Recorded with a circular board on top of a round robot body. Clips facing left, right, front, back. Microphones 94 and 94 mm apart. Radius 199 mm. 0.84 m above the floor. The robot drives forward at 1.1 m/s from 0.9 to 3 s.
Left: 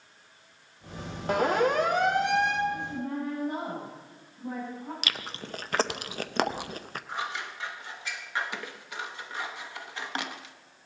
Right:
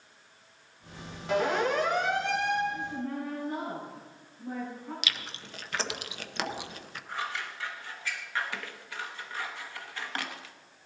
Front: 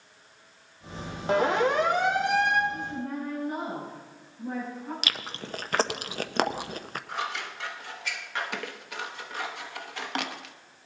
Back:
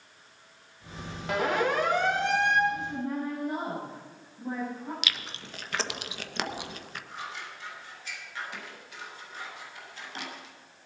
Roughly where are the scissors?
Ahead.